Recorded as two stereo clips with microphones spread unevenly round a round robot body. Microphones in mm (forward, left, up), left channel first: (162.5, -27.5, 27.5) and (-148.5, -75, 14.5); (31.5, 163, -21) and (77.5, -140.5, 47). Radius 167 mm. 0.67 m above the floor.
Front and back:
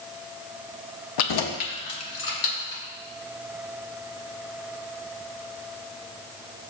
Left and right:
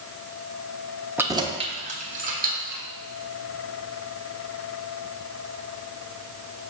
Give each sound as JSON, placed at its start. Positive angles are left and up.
{"t": 1.2, "sound": "keys jangling", "azimuth_deg": 10, "distance_m": 0.6}